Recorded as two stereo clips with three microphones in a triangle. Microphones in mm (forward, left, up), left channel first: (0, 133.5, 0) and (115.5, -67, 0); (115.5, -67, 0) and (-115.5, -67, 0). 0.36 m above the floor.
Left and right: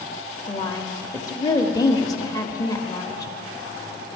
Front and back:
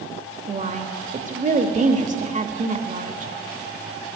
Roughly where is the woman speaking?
Behind.